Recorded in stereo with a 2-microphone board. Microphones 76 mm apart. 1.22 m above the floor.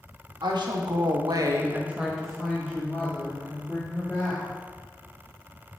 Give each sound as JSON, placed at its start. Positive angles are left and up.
{"t": 0.4, "sound": "a woman speaking", "side_deg": -80, "distance_m": 1.8}